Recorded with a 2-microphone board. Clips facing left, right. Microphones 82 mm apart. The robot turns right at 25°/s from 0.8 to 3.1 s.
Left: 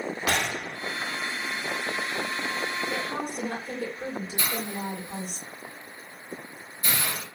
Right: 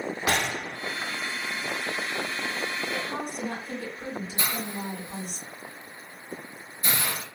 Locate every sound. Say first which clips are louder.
0.3 s a gunshot: right 1 dB; 30° right (ahead or behind), 1.7 m
2.9 s a woman speaking: left 1 dB; 45° left (ahead or behind), 1.2 m
4.4 s a hiss: even; 25° right (ahead or behind), 0.6 m